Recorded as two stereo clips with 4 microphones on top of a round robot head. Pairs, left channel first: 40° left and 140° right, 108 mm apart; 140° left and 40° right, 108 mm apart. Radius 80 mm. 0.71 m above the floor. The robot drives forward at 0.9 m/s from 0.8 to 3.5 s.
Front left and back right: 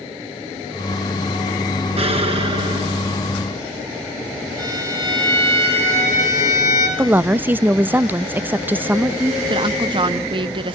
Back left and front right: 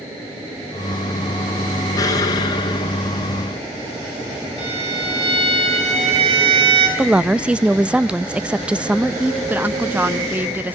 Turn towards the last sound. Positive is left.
turn(degrees=-110)